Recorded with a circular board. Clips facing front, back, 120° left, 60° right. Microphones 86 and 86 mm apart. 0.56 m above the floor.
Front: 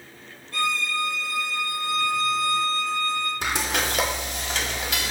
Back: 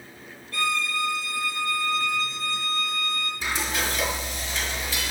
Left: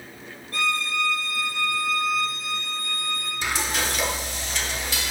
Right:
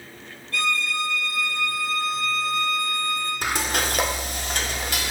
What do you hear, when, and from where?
0.5 s a violin: 60° left, 1.8 m
3.4 s frying: 25° right, 0.5 m